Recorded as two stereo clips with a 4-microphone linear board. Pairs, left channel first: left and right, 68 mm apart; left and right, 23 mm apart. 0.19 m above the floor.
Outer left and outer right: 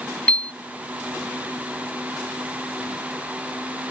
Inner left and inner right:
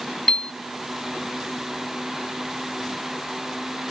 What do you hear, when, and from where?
0.3 s a piano: 20° left (ahead or behind), 0.6 m